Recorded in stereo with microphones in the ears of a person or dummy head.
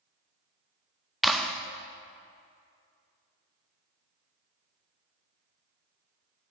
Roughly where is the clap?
Centre.